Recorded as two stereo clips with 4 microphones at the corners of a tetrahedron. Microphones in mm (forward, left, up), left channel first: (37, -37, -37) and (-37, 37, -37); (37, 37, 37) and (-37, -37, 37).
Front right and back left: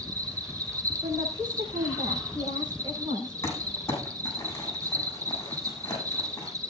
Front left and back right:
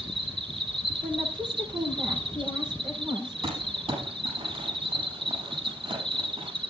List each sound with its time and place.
0.0 s an insect: 170° right, 1.8 m
1.0 s a woman speaking: straight behind, 6.5 m
3.4 s crumpling: 105° right, 6.5 m